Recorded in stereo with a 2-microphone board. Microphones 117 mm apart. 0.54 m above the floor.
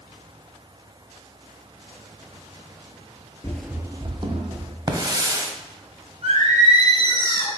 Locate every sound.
3.4 s running footsteps: 25° left (ahead or behind), 0.5 m; by 4.8 s 50° right (ahead or behind), 1.7 m
4.9 s a hiss: 35° right (ahead or behind), 1.0 m
6.2 s singing: 65° right (ahead or behind), 2.5 m